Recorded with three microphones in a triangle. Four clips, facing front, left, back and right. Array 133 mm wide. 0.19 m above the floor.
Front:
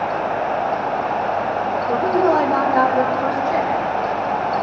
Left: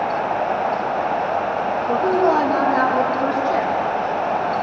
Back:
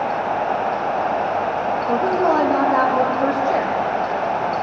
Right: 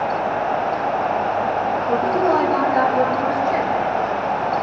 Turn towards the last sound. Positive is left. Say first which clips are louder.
# left 2 dB, front 1 dB
turn(degrees=155)